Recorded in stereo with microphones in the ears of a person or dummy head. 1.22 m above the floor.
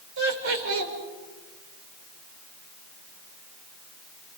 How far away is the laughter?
About 5 m.